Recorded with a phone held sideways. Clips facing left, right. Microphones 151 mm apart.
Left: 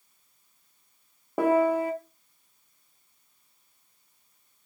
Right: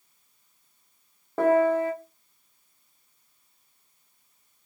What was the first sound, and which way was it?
A piano, 15° left (ahead or behind).